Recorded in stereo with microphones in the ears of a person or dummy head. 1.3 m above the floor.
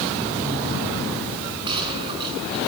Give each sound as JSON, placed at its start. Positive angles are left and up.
{"t": 1.6, "sound": "a gunshot", "side_deg": -25, "distance_m": 6.0}